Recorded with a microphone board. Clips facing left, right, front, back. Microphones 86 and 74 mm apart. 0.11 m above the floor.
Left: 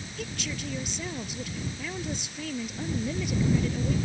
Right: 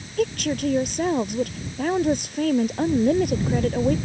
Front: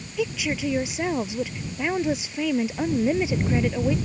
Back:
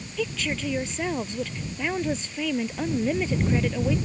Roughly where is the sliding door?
No sliding door in this recording.